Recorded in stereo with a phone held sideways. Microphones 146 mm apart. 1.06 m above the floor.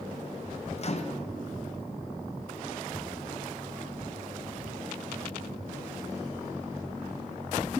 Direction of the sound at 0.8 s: 45° left (ahead or behind).